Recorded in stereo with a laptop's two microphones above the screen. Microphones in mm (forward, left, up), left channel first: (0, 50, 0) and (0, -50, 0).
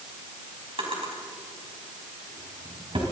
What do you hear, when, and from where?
0.8 s a drawer: 65° right (ahead or behind), 5 m